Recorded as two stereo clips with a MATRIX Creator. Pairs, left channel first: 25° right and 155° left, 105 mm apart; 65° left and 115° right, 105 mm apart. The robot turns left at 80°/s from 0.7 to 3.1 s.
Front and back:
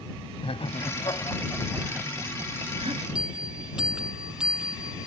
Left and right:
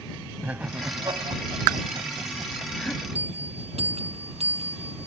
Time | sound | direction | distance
0.4 | laughter | 40° right | ?
3.1 | a bell | 120° right | ?